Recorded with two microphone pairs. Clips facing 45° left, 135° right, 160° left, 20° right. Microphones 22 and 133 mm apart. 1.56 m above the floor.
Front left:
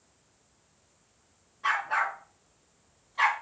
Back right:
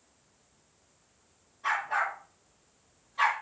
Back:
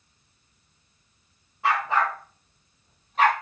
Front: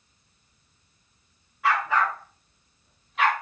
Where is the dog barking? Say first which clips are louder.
Front left 2 dB, even; 100° left, 6 m; by 3.3 s 115° left, 3.5 m.